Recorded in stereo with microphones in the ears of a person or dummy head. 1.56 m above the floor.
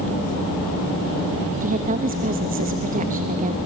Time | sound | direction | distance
1.6 | a woman speaking | 40° right (ahead or behind) | 0.8 m